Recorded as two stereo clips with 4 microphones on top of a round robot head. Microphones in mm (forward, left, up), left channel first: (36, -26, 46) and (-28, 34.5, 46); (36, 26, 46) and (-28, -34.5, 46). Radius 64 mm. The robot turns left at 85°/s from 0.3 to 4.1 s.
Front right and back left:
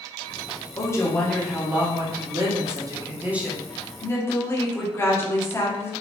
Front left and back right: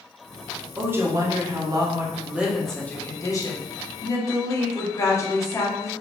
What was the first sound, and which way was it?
A woman speaking, 70° right.